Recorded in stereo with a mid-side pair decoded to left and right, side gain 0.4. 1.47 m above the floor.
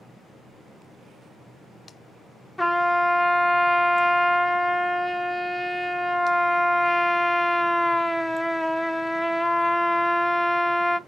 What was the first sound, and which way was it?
A trumpet, 5° left.